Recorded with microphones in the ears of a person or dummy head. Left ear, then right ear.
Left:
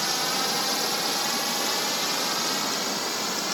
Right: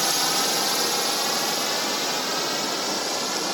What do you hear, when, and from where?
0.0 s a drone: 10° right (ahead or behind); by 3.5 s 5° left (ahead or behind)